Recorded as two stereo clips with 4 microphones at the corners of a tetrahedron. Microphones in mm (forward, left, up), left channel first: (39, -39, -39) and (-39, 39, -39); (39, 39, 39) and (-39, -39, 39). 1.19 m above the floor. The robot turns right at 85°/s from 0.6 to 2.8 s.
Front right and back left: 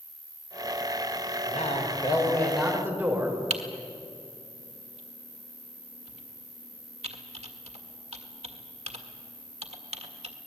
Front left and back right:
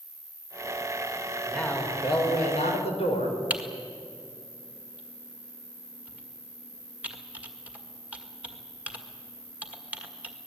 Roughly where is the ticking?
No ticking in this recording.